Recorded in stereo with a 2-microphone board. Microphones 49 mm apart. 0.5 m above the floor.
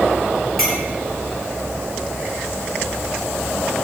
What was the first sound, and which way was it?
A clink, 5° right (ahead or behind).